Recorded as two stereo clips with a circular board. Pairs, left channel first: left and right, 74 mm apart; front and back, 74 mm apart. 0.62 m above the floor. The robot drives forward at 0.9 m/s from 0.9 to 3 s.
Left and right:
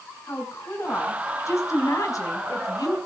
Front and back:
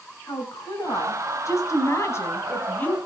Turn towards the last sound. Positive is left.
turn(degrees=65)